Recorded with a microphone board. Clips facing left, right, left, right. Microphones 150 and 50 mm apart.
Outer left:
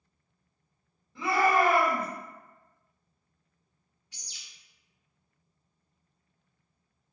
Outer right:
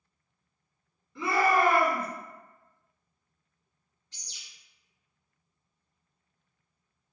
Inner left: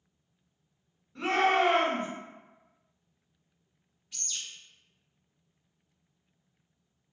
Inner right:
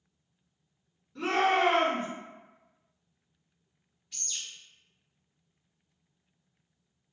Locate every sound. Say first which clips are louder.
1.1 s a shout: even, even; 30° left (ahead or behind), 1.9 m
4.1 s a bird: even, even; 10° left (ahead or behind), 1.6 m